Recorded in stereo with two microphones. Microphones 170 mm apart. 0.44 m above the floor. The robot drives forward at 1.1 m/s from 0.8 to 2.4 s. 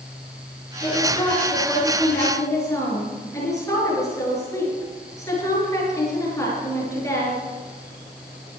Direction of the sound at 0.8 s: 25° left (ahead or behind).